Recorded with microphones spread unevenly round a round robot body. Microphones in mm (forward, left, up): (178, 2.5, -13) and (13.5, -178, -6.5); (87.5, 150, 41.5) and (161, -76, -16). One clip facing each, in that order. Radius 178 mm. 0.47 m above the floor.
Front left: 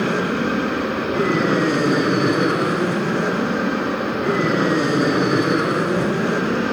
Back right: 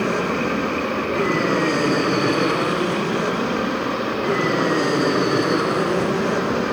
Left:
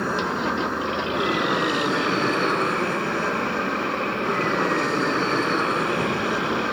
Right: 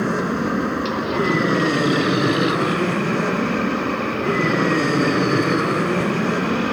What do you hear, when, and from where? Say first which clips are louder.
0.0 s an aircraft: front left 1 dB, right 5 dB; 25° right